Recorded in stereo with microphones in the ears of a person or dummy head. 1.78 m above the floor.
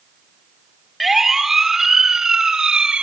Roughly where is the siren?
Centre.